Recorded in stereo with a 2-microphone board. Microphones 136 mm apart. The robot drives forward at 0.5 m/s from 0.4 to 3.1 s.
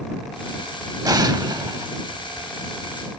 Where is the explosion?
30° right (ahead or behind), 0.5 m; by 1.9 s 25° right (ahead or behind), 0.6 m.